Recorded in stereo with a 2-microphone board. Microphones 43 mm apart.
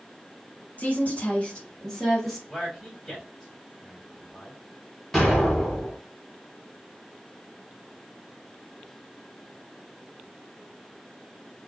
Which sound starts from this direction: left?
A woman speaking, at 0.8 s.